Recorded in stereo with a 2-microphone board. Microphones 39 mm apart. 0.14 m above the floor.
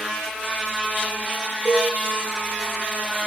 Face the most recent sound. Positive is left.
turn(degrees=-25)  # may be behind; listen again after turning